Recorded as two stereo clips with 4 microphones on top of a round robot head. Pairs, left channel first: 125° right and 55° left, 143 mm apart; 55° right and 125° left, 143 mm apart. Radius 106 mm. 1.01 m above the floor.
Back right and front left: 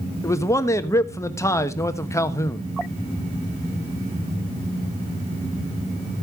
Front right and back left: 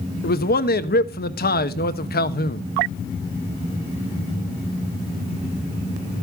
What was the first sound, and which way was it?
A man speaking, 55° right.